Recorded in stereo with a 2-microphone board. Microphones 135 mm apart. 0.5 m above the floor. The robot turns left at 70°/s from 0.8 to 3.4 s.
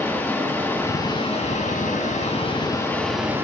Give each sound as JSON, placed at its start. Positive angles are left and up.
{"t": 0.0, "sound": "running water", "azimuth_deg": 165, "distance_m": 2.5}